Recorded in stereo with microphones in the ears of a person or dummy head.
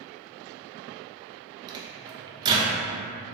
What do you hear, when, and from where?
1.7 s a microwave: 25° right (ahead or behind), 0.6 m